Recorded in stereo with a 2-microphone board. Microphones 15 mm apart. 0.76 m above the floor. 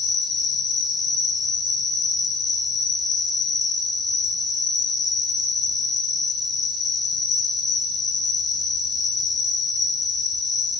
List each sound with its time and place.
0.0 s an insect: centre (ahead or behind), 5.5 m